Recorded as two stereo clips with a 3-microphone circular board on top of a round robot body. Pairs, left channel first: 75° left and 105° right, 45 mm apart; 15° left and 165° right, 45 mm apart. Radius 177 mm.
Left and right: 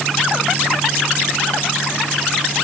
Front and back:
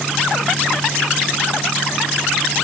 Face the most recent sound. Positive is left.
No sound to turn to.